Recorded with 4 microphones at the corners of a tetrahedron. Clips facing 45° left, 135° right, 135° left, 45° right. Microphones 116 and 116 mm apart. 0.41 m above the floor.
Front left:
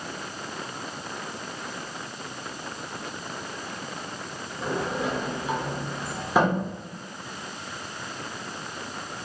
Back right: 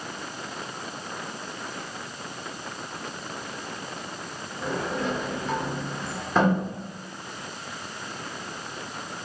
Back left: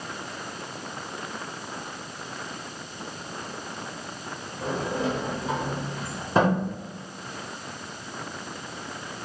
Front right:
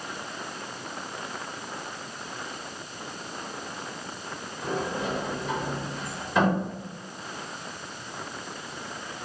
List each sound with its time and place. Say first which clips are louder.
4.6 s a sliding door: even, back left 2 dB; 120° left, 0.9 m